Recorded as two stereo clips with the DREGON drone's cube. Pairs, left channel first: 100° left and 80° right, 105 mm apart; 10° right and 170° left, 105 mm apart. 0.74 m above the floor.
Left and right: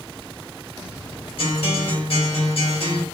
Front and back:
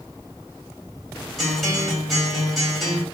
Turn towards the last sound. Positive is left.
turn(degrees=75)